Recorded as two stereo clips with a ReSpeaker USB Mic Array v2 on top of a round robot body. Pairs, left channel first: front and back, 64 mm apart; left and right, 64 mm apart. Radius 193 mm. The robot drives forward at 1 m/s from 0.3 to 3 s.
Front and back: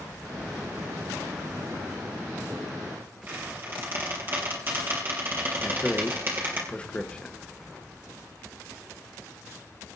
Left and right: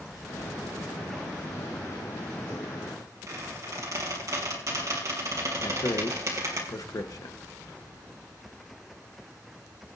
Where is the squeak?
125° right, 3.5 m.